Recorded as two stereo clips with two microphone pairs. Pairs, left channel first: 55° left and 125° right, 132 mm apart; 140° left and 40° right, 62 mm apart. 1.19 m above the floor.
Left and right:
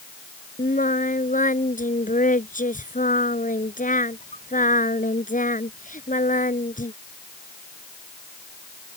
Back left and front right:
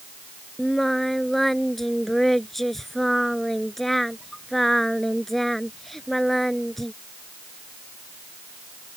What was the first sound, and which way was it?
Singing, 50° left.